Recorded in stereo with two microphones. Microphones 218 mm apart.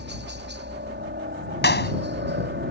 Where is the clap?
50° left (ahead or behind).